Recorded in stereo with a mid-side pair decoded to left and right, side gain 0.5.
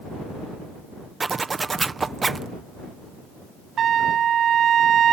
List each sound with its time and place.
1.2 s a zipper: 25° right
3.8 s a trumpet: 55° right